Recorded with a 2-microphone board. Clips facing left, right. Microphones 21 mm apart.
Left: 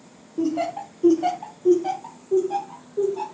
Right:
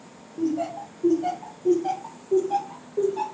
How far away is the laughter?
About 0.7 m.